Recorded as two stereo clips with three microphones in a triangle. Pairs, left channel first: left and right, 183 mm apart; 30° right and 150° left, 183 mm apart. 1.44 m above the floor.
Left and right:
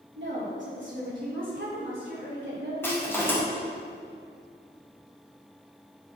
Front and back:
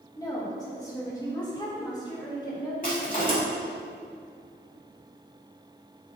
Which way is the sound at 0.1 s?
100° right.